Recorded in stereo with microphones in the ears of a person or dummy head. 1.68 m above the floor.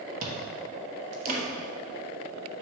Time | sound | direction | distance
0.2 | chewing | 50° right (ahead or behind) | 1.2 m